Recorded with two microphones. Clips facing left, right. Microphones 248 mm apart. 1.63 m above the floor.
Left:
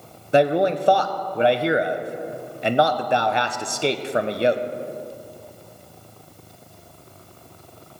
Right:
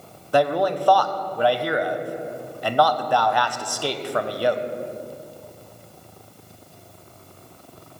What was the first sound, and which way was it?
A man speaking, 20° left (ahead or behind).